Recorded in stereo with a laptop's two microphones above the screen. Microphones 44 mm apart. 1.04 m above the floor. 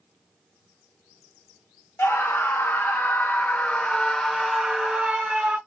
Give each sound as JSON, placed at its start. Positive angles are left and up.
{"t": 2.0, "sound": "a scream", "side_deg": 65, "distance_m": 1.4}